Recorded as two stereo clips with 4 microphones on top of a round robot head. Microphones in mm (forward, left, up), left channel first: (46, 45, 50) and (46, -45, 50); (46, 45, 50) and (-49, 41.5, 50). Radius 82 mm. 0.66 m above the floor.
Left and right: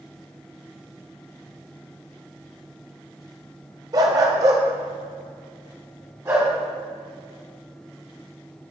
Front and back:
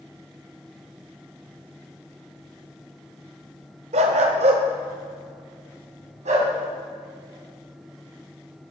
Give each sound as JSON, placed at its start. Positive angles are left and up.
{"t": 3.9, "sound": "a dog barking", "azimuth_deg": -150, "distance_m": 0.9}